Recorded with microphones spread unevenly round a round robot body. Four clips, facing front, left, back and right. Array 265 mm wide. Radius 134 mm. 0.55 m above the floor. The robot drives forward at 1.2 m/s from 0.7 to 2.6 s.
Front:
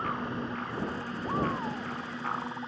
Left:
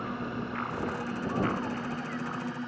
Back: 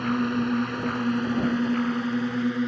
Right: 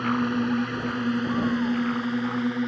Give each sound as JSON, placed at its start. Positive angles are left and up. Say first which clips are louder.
{"t": 0.0, "sound": "a drone", "louder": "right 10 dB, back 8 dB", "azimuth_deg": -140}